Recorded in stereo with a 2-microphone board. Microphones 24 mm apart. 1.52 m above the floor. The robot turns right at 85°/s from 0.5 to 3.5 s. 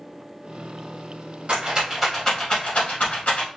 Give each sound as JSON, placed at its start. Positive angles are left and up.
{"t": 1.5, "sound": "a rattle", "side_deg": -50, "distance_m": 2.0}